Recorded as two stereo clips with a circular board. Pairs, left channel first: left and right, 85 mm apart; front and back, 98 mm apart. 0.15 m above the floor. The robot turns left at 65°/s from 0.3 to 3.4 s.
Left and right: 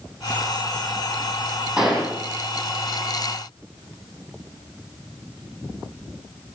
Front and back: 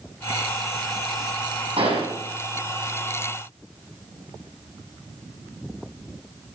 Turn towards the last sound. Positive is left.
turn(degrees=75)